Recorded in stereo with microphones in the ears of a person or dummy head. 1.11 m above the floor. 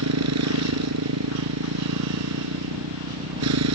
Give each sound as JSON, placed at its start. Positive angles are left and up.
{"t": 0.0, "sound": "a motorcycle", "side_deg": -85}